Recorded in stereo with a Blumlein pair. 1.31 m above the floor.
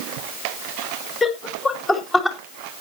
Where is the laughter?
15° left, 3 m; by 2.4 s 5° left, 2 m.